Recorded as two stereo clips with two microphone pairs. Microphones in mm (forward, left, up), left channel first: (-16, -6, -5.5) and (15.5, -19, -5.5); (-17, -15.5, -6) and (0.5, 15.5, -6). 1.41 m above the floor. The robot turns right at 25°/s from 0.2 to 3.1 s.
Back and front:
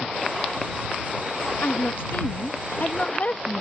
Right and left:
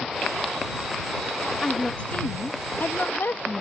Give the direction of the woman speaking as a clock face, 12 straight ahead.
6 o'clock.